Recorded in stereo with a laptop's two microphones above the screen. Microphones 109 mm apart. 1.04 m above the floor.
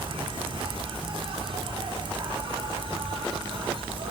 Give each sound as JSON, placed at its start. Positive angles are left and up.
{"t": 0.0, "sound": "an insect", "side_deg": -55, "distance_m": 1.6}